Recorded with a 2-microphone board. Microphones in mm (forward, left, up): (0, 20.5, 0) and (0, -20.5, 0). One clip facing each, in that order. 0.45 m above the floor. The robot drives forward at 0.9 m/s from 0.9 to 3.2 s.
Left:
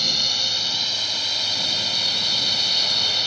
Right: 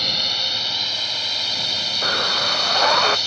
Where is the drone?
15° right (ahead or behind); by 3.3 s 5° left (ahead or behind).